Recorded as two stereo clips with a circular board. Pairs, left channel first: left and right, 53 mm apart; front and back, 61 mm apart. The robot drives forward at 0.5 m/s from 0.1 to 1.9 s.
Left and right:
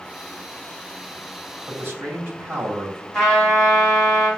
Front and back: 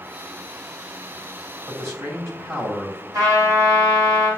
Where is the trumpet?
170° left, 2.5 m.